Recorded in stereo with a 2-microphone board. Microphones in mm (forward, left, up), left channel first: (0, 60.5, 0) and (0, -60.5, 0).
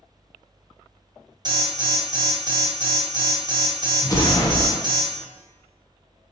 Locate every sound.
1.4 s an alarm: 35° right (ahead or behind), 0.7 m
4.0 s an explosion: 30° left (ahead or behind), 0.6 m